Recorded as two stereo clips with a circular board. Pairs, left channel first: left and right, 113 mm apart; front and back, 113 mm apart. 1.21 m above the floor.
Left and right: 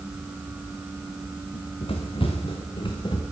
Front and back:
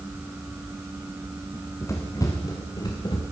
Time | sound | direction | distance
1.5 | running footsteps | 65° left | 7 m